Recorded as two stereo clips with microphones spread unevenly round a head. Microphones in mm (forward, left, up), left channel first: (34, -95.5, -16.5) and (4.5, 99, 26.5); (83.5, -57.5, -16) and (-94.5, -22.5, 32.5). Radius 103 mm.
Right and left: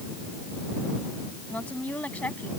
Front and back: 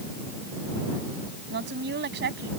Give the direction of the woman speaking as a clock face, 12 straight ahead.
6 o'clock.